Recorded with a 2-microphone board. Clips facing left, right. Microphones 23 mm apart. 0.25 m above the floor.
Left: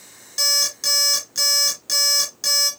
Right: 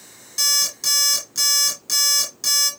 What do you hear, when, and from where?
0.4 s an alarm clock: 5° left (ahead or behind), 2 m